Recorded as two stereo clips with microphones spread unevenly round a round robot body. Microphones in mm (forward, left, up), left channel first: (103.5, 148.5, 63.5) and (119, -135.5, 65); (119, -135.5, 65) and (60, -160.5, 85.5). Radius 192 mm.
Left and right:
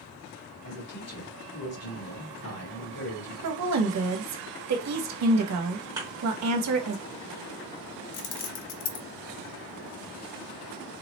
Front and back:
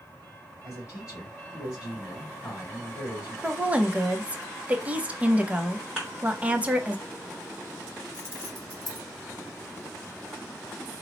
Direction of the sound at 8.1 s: 75° left.